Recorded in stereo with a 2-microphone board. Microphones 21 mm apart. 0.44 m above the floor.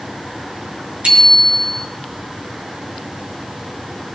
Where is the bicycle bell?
65° right (ahead or behind), 4 m.